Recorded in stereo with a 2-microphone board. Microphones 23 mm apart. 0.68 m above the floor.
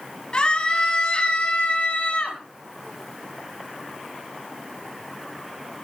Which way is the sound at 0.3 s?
40° left (ahead or behind).